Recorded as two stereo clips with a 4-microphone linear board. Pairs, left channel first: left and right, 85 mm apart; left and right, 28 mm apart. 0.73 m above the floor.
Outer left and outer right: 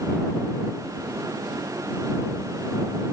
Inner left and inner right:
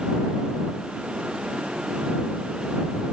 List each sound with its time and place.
Only background noise.